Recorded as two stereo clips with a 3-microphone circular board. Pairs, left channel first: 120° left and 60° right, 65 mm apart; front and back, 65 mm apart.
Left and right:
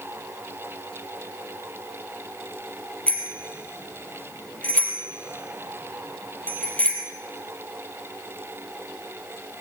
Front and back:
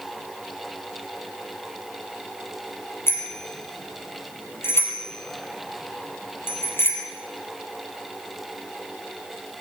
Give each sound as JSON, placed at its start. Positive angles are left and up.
{"t": 3.1, "sound": "a bicycle bell", "azimuth_deg": 50, "distance_m": 4.5}